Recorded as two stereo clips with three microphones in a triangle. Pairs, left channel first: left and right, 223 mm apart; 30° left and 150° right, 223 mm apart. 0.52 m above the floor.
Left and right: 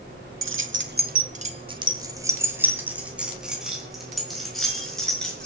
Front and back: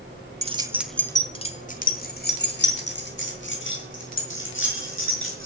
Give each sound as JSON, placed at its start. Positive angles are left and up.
{"t": 0.4, "sound": "keys jangling", "azimuth_deg": -90, "distance_m": 1.0}